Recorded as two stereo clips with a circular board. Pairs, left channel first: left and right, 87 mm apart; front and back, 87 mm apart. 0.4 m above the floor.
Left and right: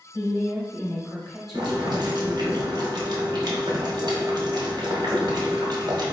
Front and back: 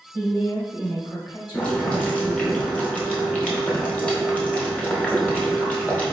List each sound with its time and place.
0.1 s a woman speaking: 30° left, 2 m; by 2.5 s 40° right, 1.9 m
1.5 s boiling: 75° right, 1.3 m